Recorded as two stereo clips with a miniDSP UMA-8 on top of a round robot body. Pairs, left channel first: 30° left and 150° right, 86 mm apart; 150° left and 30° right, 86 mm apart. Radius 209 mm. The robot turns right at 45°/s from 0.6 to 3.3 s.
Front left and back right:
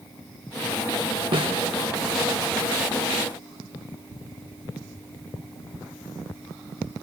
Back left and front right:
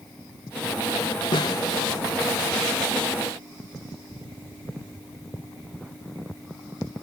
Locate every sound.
1.3 s a snare drum: 175° right, 0.5 m; by 1.8 s 150° right, 0.5 m